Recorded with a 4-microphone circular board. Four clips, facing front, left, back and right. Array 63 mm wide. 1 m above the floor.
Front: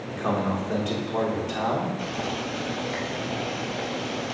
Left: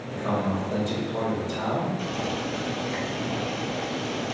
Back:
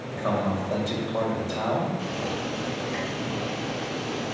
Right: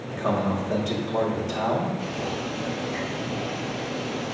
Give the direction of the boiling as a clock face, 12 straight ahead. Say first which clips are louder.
Even, even; 11 o'clock.